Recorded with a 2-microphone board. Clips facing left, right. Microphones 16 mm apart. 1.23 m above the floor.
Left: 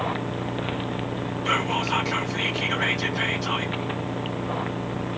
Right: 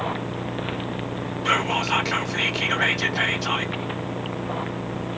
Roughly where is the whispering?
Right.